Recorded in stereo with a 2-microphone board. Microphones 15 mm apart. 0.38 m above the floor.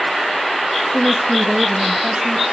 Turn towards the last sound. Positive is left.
turn(degrees=-70)  # may be behind; listen again after turning